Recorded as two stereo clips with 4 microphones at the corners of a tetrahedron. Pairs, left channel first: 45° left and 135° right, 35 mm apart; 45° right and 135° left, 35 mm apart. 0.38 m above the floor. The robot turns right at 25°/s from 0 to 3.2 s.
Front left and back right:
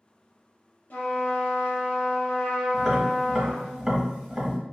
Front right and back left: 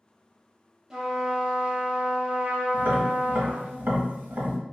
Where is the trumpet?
50° left, 0.8 m; by 3.7 s 110° left, 0.8 m.